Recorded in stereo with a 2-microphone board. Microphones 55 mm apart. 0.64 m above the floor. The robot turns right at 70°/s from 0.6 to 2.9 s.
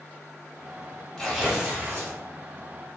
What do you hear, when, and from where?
1.2 s tearing paper: 165° left, 1.0 m; by 2.2 s 120° right, 1.0 m